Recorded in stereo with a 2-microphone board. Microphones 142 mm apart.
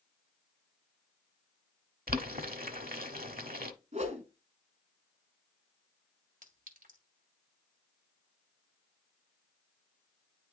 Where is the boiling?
80° right, 0.9 m.